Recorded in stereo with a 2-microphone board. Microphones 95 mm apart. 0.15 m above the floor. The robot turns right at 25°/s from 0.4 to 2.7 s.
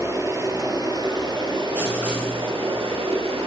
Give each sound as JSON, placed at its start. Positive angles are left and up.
{"t": 0.0, "sound": "running water", "azimuth_deg": -145, "distance_m": 1.0}
{"t": 1.7, "sound": "writing", "side_deg": -20, "distance_m": 2.0}